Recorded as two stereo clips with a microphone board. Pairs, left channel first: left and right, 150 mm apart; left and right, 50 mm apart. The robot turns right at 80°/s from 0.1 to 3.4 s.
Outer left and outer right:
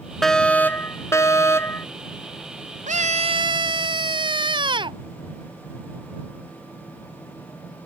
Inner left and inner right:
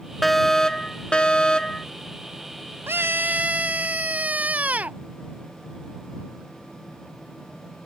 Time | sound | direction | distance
0.2 | a fire alarm | centre (ahead or behind) | ?
2.9 | a scream | 85° right | ?